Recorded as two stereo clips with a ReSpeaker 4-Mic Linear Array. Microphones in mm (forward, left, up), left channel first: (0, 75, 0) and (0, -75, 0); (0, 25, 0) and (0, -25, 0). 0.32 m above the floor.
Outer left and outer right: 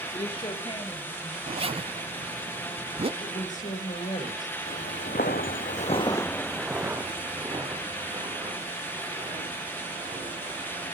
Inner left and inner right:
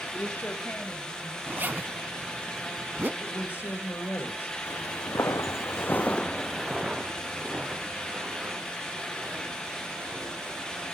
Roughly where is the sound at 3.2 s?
Left.